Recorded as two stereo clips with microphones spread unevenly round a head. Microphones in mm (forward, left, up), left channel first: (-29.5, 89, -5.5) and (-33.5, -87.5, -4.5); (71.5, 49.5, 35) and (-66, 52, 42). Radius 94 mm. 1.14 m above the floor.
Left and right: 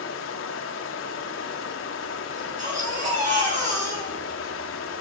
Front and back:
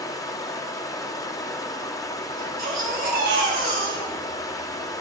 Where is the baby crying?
140° right, 4 m.